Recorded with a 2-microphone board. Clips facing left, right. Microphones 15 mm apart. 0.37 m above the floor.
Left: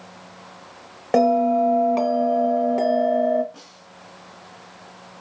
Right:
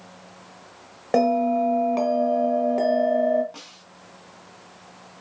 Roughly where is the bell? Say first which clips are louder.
Left 3 dB; centre.